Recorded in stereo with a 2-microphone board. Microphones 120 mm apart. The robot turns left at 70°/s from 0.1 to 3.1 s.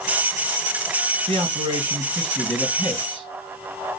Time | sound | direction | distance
1.3 | a man speaking | 110° right | 2.5 m